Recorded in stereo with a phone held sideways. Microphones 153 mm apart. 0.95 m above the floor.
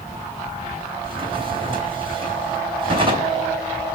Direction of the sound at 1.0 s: 35° right (ahead or behind).